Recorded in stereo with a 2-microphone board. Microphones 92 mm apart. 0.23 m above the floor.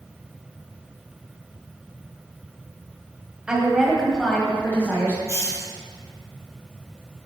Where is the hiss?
35° left (ahead or behind), 1.1 m.